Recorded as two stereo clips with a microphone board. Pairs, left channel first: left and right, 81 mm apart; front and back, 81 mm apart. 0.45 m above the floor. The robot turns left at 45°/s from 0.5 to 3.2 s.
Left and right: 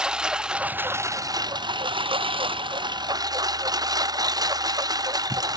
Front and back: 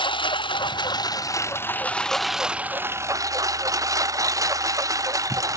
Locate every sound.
0.0 s a lawn mower: 10° right; by 5.6 s 130° right